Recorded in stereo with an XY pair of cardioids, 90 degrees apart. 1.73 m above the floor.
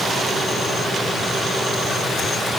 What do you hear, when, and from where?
Only background noise.